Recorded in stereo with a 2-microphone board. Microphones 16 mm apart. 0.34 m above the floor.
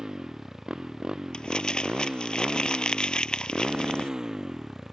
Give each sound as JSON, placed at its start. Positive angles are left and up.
{"t": 0.0, "sound": "a motorcycle", "side_deg": -50}
{"t": 1.3, "sound": "crumpling", "side_deg": 70}